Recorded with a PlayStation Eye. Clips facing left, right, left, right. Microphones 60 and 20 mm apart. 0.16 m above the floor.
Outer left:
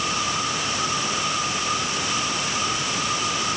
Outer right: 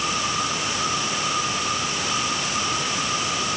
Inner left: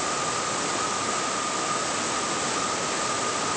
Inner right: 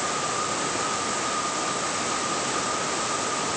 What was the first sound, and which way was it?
Only background noise.